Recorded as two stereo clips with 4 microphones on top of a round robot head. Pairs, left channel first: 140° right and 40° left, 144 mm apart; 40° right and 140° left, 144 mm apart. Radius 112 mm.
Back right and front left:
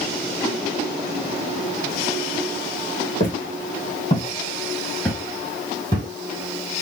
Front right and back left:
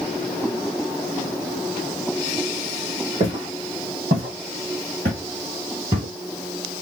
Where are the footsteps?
170° right, 2.5 m; by 6.1 s 80° left, 1.6 m.